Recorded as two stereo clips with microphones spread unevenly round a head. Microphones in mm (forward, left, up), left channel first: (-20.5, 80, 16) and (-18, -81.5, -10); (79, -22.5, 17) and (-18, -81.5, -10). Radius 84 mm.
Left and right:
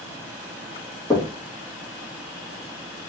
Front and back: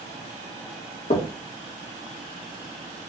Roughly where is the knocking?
Ahead.